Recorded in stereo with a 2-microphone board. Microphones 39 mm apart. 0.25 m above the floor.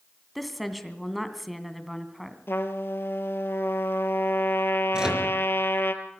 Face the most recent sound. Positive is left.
turn(degrees=-20)  # may be behind; listen again after turning